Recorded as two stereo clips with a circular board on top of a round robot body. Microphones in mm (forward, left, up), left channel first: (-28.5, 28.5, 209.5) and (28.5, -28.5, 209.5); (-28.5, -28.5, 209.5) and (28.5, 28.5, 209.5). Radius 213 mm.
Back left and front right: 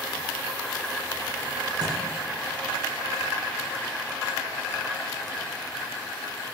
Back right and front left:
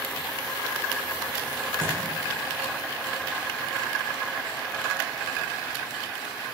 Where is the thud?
20° right, 9.5 m.